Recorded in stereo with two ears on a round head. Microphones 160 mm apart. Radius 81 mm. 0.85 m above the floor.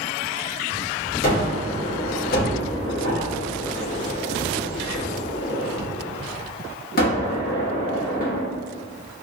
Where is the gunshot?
50° left (ahead or behind), 1.3 m.